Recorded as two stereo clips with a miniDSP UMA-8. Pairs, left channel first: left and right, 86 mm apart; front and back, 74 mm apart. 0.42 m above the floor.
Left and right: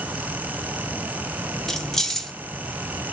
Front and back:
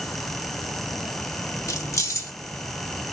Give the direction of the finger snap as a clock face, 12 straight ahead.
No finger snap in this recording.